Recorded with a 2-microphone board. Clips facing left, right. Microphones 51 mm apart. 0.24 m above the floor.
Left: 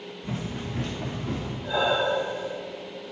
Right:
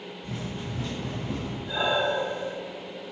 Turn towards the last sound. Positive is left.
turn(degrees=90)